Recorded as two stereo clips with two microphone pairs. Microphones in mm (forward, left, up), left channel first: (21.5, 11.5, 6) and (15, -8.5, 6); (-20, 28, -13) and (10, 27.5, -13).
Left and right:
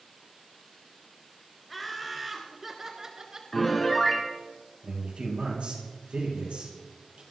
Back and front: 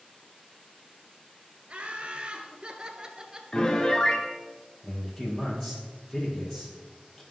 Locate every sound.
1.7 s laughter: 10° right, 1.4 m; by 3.4 s 65° right, 1.4 m
3.5 s a piano: 140° left, 1.2 m
4.8 s a man speaking: 110° right, 3.5 m